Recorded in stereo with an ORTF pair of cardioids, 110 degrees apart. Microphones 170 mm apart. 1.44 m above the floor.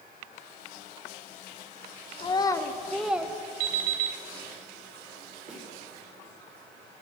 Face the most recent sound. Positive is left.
turn(degrees=-50)